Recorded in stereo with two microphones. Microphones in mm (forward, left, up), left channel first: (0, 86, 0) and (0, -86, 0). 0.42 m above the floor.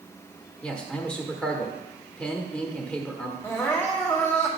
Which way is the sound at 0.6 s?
5° left (ahead or behind).